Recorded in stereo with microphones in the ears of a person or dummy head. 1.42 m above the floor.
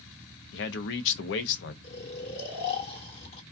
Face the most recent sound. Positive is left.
turn(degrees=50)  # may be behind; listen again after turning